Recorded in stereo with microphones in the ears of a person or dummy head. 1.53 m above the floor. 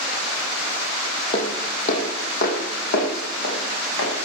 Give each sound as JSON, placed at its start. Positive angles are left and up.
{"t": 1.3, "sound": "footsteps", "side_deg": 40, "distance_m": 3.0}